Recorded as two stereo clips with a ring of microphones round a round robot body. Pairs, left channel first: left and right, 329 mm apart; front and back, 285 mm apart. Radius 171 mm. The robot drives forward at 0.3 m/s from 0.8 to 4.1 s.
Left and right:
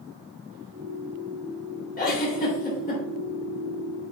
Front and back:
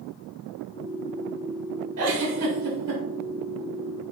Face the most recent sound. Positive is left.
turn(degrees=160)